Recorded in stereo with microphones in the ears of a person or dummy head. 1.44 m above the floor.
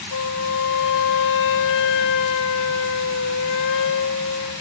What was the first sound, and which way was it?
A flute, 60° left (ahead or behind).